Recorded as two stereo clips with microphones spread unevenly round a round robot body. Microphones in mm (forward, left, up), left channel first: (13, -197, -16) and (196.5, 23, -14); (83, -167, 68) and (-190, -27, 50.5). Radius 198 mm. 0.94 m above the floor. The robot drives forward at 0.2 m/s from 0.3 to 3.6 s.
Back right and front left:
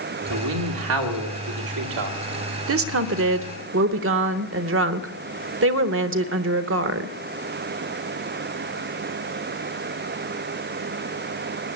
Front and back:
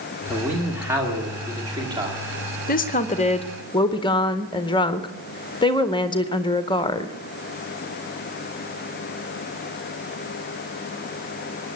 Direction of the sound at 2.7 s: 30° left.